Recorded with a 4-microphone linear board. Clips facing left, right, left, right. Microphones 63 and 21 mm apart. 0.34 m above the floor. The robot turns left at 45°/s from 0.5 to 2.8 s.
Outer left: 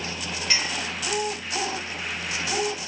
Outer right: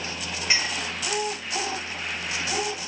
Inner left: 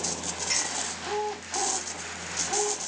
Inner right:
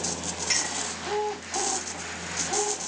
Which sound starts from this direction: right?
A clink, at 0.5 s.